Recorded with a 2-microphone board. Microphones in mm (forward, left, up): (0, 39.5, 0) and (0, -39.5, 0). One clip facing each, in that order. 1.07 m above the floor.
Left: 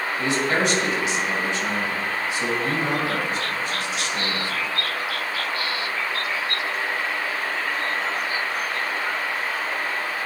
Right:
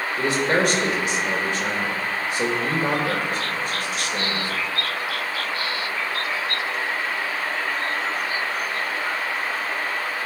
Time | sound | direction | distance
0.2 | a man speaking | 50° right (ahead or behind) | 1.6 m